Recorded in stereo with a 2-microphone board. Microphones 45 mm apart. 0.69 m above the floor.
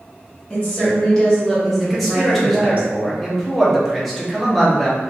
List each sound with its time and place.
0.5 s a woman speaking: 30° left (ahead or behind), 1.6 m; by 2.8 s 35° right (ahead or behind), 1.0 m
1.8 s a man speaking: centre (ahead or behind), 0.7 m